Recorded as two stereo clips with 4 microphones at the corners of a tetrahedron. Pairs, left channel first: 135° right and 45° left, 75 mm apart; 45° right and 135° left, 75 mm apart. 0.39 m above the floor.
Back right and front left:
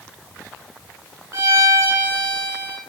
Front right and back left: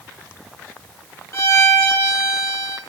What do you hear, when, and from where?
1.3 s a violin: straight ahead, 0.8 m